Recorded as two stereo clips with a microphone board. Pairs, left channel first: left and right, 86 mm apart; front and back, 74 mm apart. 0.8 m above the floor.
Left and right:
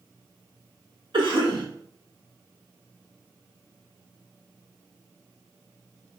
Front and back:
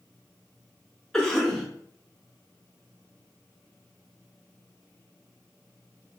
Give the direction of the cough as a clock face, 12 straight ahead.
3 o'clock.